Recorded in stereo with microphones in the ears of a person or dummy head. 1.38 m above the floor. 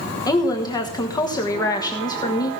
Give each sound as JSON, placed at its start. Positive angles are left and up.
{"t": 0.3, "sound": "a woman speaking", "side_deg": 20, "distance_m": 1.3}